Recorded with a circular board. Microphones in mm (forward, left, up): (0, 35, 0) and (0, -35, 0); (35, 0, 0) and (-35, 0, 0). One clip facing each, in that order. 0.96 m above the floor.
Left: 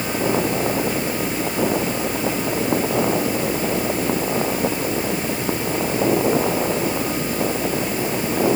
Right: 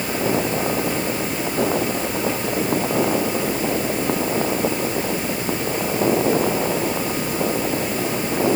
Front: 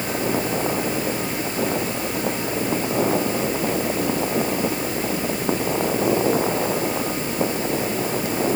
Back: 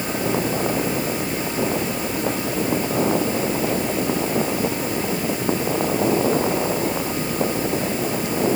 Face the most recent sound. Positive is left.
No sound to turn to.